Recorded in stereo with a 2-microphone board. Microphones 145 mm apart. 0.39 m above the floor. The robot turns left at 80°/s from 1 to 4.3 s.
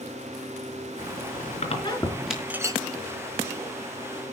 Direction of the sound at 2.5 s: 10° right (ahead or behind).